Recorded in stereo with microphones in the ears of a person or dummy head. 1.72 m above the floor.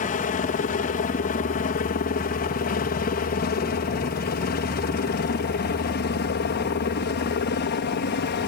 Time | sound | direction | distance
0.0 | a helicopter | 40° left (ahead or behind) | ?